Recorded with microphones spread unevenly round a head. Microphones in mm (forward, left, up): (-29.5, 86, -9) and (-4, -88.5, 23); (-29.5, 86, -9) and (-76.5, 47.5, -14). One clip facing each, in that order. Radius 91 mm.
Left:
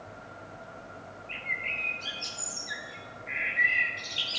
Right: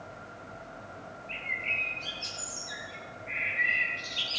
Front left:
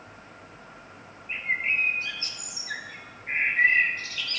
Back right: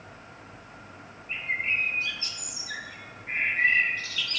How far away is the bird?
About 0.8 m.